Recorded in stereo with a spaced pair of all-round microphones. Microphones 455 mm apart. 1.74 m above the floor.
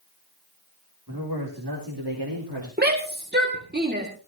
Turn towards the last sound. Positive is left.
turn(degrees=-20)  # may be behind; listen again after turning